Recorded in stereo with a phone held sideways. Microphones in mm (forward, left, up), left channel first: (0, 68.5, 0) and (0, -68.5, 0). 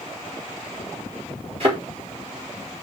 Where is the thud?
45° right (ahead or behind), 4.5 m.